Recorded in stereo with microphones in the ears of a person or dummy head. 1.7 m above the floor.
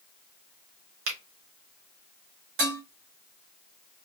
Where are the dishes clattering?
55° right (ahead or behind), 1.6 m.